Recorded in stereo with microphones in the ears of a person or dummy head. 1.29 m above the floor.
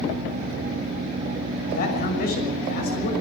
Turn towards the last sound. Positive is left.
turn(degrees=50)  # may be behind; listen again after turning